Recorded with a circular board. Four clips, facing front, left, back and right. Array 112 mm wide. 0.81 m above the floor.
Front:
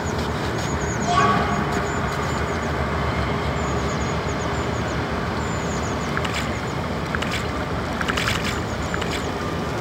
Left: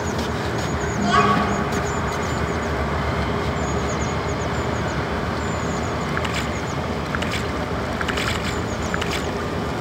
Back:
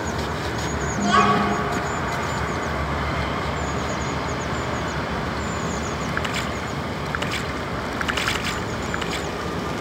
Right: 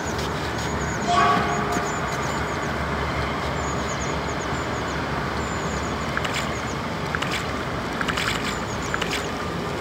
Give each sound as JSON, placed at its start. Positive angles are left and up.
{"t": 1.0, "sound": "a child speaking", "azimuth_deg": 135, "distance_m": 7.0}